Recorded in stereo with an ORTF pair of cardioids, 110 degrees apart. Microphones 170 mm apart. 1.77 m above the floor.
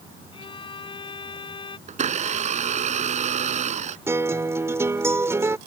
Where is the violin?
30° left.